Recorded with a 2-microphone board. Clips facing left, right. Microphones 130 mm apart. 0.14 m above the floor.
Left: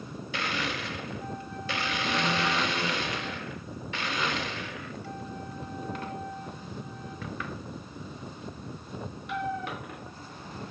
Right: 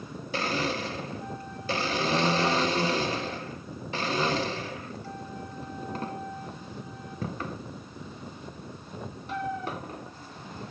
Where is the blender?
35° right (ahead or behind), 0.9 m.